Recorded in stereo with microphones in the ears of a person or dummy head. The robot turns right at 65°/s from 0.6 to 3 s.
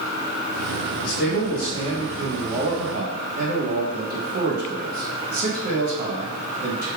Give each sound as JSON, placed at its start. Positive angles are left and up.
{"t": 1.0, "sound": "a man speaking", "azimuth_deg": 100, "distance_m": 1.1}